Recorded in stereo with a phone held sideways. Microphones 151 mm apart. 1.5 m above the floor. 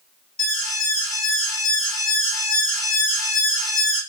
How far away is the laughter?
No laughter in this recording.